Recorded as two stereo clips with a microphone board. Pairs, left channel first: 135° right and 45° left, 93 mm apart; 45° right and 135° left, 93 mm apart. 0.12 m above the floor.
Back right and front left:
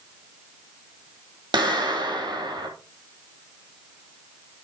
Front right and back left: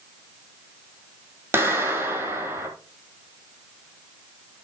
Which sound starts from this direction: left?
A clap, at 1.5 s.